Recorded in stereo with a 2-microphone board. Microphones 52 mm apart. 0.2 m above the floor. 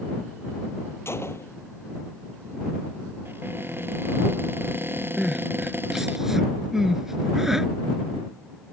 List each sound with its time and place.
1.1 s a gunshot: 55° left (ahead or behind)
3.2 s a cupboard door: 45° right (ahead or behind)
5.2 s crying: 10° right (ahead or behind)